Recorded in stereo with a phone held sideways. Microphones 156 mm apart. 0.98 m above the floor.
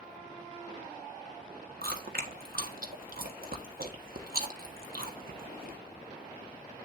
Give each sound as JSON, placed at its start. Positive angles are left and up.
{"t": 1.8, "sound": "chewing", "side_deg": -70, "distance_m": 1.4}